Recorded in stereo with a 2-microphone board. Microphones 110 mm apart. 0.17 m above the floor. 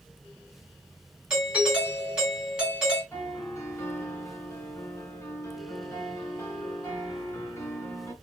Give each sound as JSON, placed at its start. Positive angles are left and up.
{"t": 1.3, "sound": "a doorbell", "side_deg": -10, "distance_m": 1.9}
{"t": 3.1, "sound": "a piano", "side_deg": 25, "distance_m": 1.1}